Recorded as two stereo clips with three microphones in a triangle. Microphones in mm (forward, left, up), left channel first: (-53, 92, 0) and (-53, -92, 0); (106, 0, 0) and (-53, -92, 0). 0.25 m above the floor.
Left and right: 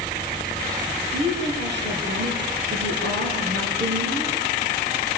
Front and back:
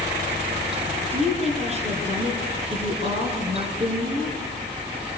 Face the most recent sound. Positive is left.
turn(degrees=-95)